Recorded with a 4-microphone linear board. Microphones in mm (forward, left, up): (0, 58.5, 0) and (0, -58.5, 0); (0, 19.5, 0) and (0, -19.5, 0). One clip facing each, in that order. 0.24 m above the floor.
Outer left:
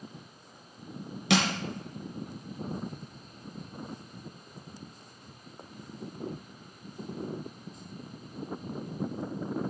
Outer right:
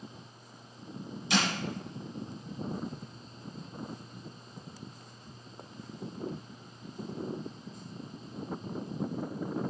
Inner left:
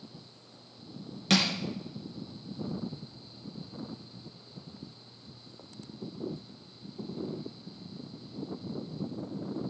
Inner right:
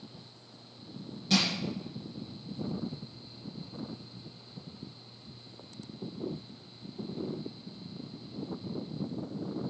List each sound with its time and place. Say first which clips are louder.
1.3 s crushing: outer left 4 dB, inner left 2 dB; 70° left (ahead or behind), 2.5 m